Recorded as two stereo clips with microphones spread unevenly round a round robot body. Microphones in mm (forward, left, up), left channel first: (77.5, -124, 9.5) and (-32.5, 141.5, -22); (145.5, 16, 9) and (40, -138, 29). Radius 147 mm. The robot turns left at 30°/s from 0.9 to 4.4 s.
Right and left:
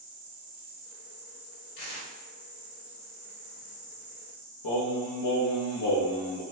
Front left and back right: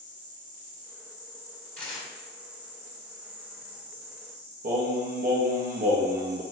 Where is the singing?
90° right, 0.6 m.